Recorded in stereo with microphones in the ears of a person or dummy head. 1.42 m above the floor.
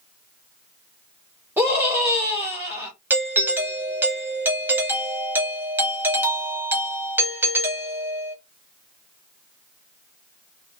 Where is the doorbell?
5° right (ahead or behind), 0.7 m.